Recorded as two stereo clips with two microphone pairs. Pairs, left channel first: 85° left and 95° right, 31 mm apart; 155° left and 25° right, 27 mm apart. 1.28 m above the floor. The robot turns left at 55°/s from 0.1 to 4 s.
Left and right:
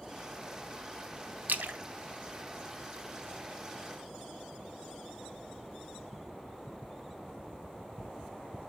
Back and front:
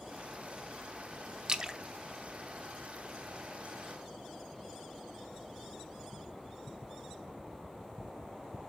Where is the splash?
95° right, 0.5 m; by 3.6 s 150° left, 0.5 m.